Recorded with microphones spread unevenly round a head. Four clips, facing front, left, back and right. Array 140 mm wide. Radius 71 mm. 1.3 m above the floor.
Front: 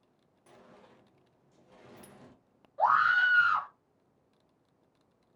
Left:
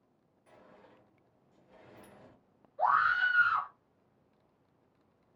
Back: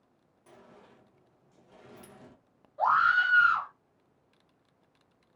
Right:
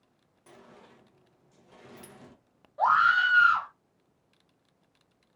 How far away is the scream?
About 1.7 m.